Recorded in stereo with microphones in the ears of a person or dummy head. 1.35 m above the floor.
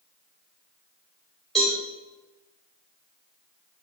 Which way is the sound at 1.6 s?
Centre (ahead or behind).